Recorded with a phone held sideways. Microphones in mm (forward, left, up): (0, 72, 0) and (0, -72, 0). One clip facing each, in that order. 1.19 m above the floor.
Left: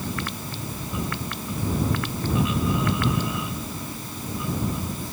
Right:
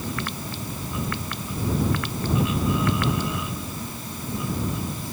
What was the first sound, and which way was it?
Only background noise.